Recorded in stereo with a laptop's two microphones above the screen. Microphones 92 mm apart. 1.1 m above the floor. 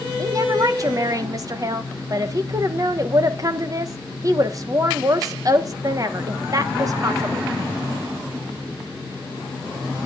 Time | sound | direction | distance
0.2 | a woman speaking | 35° right (ahead or behind) | 1.2 m